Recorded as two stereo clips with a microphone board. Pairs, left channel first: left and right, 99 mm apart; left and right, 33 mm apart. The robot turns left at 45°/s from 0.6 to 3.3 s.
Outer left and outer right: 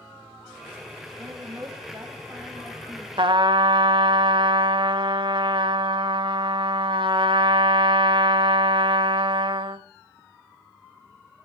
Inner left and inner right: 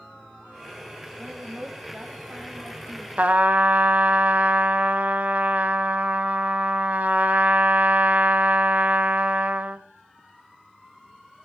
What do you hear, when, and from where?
1.2 s a woman speaking: 95° right, 1.7 m; by 3.1 s straight behind, 1.7 m
3.2 s a trumpet: 55° right (ahead or behind), 0.8 m